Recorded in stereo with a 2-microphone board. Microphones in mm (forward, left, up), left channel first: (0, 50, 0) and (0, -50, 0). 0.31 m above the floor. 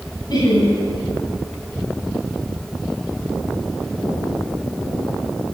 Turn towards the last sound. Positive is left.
turn(degrees=45)  # may be behind; listen again after turning